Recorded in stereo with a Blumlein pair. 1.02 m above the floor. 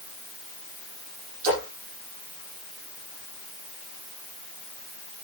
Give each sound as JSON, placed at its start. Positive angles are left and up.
{"t": 1.4, "sound": "a splash", "azimuth_deg": -50, "distance_m": 8.0}